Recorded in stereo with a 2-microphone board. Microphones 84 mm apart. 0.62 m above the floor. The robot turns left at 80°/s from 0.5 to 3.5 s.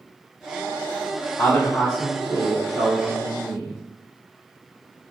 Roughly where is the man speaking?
Ahead left.